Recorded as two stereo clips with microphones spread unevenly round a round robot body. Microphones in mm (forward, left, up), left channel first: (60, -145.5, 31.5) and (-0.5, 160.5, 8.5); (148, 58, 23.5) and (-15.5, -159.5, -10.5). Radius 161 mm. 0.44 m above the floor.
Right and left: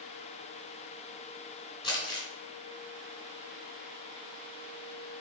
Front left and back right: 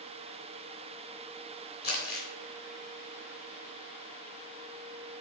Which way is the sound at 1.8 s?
Straight ahead.